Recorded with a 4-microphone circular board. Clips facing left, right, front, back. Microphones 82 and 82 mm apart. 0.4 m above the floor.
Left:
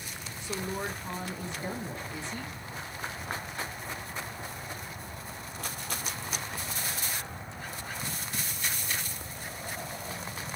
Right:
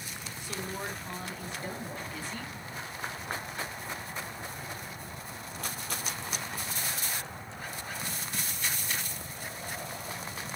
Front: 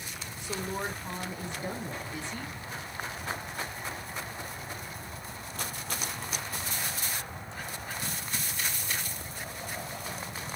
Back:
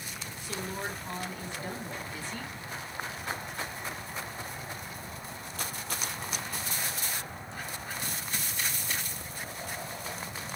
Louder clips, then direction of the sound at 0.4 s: Left 3 dB, front 2 dB; 45° left.